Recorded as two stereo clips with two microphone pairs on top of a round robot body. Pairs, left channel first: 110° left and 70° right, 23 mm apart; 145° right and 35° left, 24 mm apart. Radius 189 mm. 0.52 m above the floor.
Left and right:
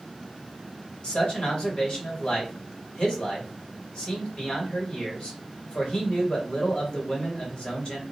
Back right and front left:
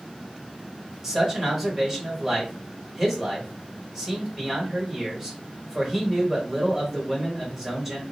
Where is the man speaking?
105° left, 1.7 m.